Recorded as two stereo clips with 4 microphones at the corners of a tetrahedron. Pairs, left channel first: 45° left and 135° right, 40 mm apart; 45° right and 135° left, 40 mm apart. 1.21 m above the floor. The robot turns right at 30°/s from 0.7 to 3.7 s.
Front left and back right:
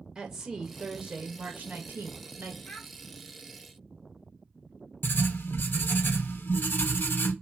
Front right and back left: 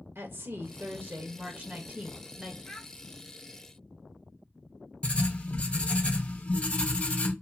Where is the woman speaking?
150° left, 0.9 m; by 2.6 s 155° right, 0.9 m.